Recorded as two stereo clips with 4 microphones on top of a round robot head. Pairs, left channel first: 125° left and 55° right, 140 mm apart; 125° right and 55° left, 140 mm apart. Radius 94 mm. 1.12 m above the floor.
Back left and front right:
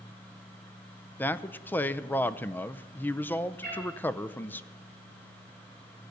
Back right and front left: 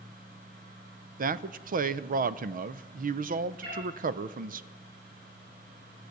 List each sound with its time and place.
1.2 s a man speaking: 50° left, 0.5 m
3.6 s a cat meowing: 55° left, 6 m